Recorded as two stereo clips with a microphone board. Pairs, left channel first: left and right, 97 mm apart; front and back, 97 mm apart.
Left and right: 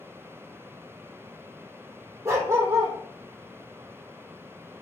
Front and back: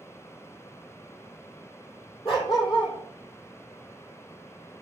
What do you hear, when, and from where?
2.2 s a dog barking: 30° right, 3.5 m